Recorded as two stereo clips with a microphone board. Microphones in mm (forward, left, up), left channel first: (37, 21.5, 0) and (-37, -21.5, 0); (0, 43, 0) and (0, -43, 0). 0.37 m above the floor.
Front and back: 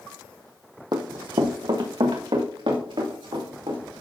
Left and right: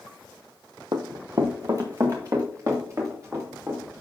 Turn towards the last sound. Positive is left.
turn(degrees=-145)